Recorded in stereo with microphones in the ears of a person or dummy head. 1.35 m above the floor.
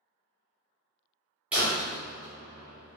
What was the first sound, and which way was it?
A door slam, 10° right (ahead or behind).